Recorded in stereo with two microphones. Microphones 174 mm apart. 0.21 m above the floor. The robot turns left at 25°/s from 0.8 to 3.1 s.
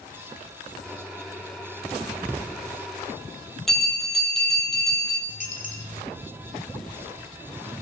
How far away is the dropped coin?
About 1.6 m.